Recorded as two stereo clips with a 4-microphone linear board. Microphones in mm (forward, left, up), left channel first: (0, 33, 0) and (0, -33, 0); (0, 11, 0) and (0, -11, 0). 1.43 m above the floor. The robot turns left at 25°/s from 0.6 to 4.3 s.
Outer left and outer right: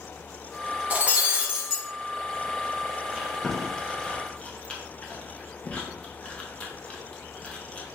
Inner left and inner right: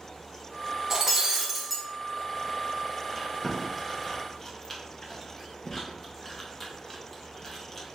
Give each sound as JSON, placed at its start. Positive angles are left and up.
{"t": 0.9, "sound": "breaking glass", "side_deg": -25, "distance_m": 0.9}
{"t": 3.1, "sound": "chewing", "side_deg": -10, "distance_m": 0.9}